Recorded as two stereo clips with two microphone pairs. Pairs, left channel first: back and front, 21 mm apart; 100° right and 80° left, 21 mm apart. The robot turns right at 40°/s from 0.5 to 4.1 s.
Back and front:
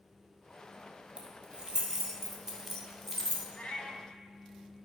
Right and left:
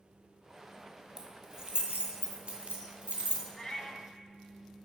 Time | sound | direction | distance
1.2 | keys jangling | 25° left | 2.5 m
3.5 | a cat meowing | 170° right | 1.0 m